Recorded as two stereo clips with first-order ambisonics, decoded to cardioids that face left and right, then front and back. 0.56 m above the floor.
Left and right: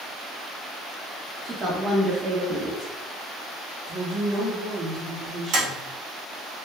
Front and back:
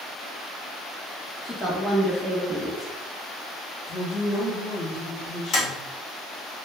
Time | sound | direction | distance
1.4 | a woman speaking | 85° right | 0.8 m
3.9 | a woman speaking | 40° right | 1.8 m
5.5 | tapping | 60° right | 1.8 m